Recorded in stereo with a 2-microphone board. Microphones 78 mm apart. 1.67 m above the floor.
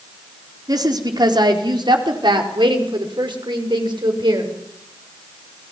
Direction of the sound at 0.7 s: 55° right (ahead or behind).